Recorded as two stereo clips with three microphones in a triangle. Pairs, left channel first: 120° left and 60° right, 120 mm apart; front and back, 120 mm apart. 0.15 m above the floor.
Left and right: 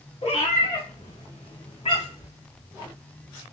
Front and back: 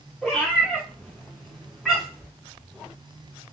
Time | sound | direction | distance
0.2 | a cat meowing | 90° left | 5 m